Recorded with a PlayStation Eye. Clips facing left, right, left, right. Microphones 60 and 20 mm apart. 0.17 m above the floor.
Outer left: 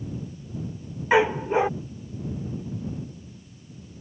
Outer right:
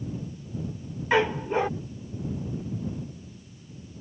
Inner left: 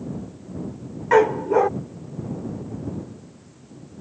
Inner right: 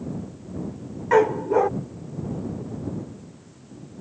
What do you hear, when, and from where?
1.1 s a dog barking: 15° left (ahead or behind)